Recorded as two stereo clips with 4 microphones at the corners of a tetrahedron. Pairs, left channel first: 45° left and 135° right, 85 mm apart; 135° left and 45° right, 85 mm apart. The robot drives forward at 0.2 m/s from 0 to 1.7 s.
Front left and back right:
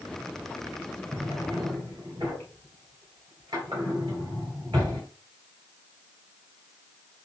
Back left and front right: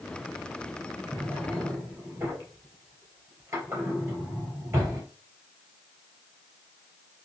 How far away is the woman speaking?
I don't hear a woman speaking.